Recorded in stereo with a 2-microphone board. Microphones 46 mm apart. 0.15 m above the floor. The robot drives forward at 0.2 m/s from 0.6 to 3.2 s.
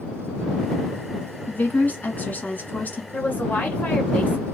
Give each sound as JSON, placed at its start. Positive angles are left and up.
{"t": 1.5, "sound": "a woman speaking", "side_deg": 40, "distance_m": 1.6}
{"t": 3.1, "sound": "a woman speaking", "side_deg": 35, "distance_m": 1.7}